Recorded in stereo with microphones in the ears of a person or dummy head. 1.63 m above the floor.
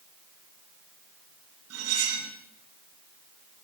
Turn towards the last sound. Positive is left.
turn(degrees=-80)